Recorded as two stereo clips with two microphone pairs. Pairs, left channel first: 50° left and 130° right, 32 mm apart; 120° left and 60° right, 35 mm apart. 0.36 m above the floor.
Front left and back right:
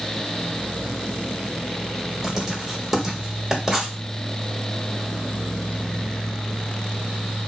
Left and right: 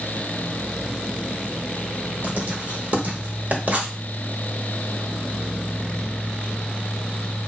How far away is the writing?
About 1.0 m.